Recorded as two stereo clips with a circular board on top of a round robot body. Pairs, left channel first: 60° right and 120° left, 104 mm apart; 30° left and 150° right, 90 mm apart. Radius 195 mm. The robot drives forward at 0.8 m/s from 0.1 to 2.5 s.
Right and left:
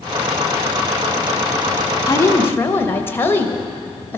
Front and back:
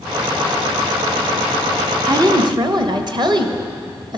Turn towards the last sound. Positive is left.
turn(degrees=-125)